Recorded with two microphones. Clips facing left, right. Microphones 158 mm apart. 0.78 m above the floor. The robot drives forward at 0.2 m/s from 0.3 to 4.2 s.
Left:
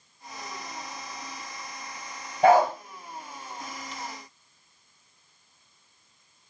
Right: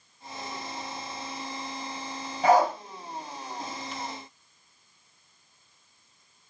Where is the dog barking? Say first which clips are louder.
Left 2 dB; 55° left (ahead or behind), 1.2 m.